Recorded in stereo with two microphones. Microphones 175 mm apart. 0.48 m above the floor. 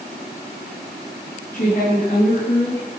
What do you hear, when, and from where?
1.5 s a woman speaking: 50° left (ahead or behind), 8 m; by 2.9 s 45° left (ahead or behind), 7 m